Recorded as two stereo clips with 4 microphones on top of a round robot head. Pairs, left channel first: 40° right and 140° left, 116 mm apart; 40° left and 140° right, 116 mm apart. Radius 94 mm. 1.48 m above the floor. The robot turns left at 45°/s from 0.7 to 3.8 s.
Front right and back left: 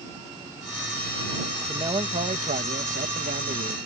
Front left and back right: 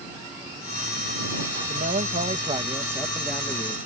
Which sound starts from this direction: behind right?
A man speaking, at 1.7 s.